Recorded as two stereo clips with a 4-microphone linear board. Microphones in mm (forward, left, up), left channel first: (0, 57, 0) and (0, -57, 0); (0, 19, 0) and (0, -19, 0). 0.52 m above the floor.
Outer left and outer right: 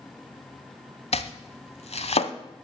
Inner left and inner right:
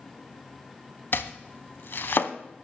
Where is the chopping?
65° left (ahead or behind), 0.8 m.